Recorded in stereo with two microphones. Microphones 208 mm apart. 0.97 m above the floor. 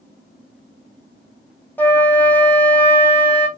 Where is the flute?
10° left (ahead or behind), 0.6 m.